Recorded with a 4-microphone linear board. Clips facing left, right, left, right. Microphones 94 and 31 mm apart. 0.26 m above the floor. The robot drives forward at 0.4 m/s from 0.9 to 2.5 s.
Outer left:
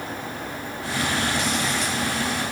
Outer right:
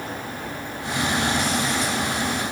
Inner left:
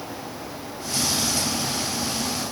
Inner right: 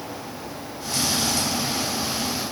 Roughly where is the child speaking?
I don't hear a child speaking.